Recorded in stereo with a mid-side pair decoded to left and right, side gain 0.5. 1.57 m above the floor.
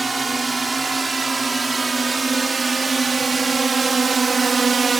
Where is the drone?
20° right; by 5.0 s 35° right.